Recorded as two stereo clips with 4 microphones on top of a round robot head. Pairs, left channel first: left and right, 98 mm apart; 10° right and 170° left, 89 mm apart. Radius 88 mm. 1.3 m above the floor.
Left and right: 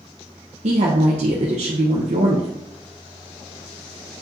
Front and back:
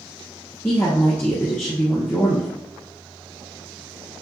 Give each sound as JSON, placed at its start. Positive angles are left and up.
{"t": 0.6, "sound": "a woman speaking", "azimuth_deg": -85, "distance_m": 0.8}